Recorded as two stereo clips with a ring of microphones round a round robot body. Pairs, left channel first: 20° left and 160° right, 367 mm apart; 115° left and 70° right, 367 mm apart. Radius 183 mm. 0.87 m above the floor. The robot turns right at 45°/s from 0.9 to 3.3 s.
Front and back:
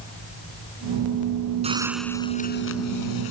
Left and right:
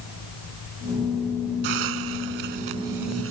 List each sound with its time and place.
1.6 s a hiss: 85° right; by 3.3 s 10° right